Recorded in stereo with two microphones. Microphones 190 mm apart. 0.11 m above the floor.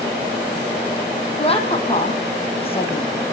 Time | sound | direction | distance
1.4 | a woman speaking | 30° left (ahead or behind) | 3.5 m